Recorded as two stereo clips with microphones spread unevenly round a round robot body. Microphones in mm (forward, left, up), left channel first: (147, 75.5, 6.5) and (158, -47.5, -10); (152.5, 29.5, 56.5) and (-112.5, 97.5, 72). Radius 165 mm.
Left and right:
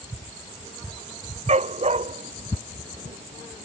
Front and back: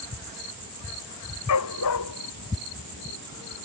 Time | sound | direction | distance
1.5 | a dog barking | 55° right | ?